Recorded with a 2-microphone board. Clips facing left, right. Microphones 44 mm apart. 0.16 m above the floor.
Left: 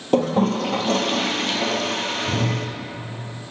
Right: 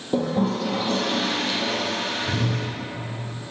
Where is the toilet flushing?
75° left (ahead or behind), 1.4 m.